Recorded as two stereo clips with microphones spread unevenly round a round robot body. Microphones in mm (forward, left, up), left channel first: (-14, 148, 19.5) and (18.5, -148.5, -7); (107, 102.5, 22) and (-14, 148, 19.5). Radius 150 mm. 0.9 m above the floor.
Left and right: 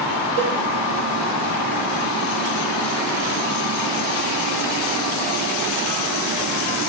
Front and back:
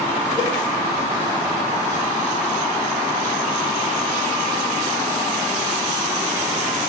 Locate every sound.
0.4 s a cowbell: 100° right, 3 m